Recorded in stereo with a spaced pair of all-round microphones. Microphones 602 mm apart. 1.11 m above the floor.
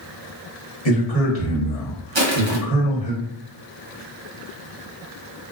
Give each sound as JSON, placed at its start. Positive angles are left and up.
{"t": 0.8, "sound": "a man speaking", "side_deg": 75, "distance_m": 1.3}
{"t": 2.1, "sound": "crushing", "side_deg": -45, "distance_m": 0.8}